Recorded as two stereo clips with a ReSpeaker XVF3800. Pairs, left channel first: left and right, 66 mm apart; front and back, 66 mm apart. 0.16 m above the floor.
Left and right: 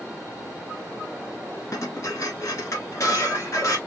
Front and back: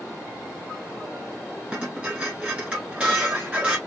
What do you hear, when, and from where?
1.7 s dishes clattering: 110° left, 1.3 m